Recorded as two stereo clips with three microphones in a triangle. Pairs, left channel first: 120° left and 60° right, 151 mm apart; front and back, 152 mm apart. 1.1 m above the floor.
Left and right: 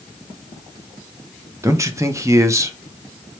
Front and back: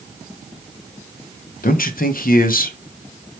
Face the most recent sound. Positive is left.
turn(degrees=10)